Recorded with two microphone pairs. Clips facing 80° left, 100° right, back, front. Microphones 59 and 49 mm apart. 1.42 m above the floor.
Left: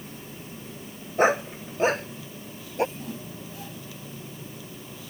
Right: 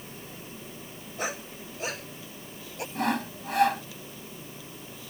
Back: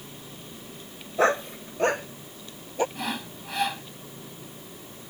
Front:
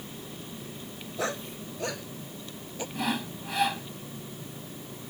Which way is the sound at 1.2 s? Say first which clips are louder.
Left 13 dB, back 10 dB; 130° left.